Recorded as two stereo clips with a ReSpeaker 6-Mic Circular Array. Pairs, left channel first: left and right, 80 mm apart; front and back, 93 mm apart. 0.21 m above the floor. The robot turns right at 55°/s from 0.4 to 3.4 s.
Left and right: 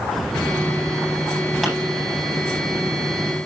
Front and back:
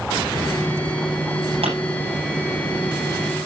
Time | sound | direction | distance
1.6 | a pop | 175° right | 10 m